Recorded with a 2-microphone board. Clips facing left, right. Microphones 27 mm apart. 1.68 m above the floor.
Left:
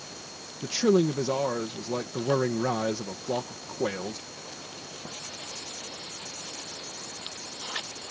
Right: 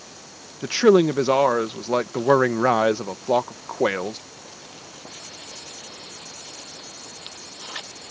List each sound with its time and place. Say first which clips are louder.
0.6 s a man speaking: right 7 dB; 60° right (ahead or behind)